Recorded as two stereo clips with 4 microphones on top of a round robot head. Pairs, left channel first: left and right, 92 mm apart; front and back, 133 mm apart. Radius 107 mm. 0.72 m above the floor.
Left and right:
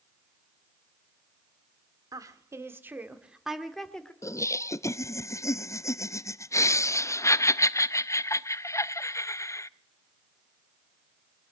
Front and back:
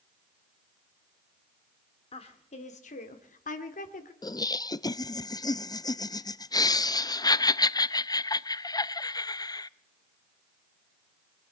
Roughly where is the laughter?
Ahead left.